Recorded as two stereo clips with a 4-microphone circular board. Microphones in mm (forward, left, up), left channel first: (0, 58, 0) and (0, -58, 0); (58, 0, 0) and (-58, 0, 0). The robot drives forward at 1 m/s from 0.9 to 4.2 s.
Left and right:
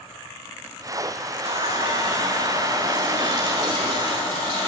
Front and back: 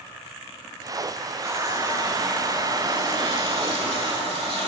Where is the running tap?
115° right, 3 m; by 4.7 s 145° right, 5 m.